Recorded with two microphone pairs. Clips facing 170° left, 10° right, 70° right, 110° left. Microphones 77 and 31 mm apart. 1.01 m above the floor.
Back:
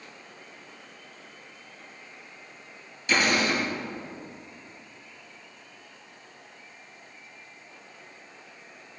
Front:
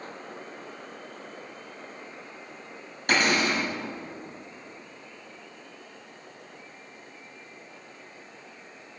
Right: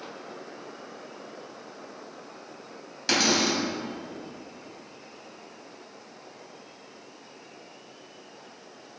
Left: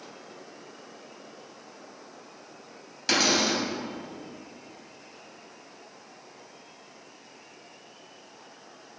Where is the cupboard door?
25° left, 3 m.